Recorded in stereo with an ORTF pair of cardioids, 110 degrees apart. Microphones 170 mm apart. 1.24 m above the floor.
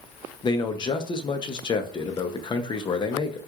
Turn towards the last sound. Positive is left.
turn(degrees=30)